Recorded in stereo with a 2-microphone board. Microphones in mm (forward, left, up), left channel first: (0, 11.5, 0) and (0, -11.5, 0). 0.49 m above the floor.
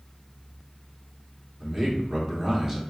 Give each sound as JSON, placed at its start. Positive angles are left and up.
{"t": 1.6, "sound": "a man speaking", "side_deg": -25, "distance_m": 0.9}